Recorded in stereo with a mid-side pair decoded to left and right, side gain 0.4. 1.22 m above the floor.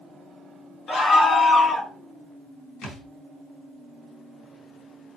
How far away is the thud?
About 4.5 m.